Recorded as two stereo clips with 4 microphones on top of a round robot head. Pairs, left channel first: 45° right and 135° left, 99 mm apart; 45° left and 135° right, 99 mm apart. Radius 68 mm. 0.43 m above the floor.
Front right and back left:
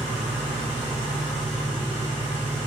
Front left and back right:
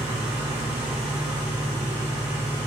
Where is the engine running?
150° left, 1.5 m.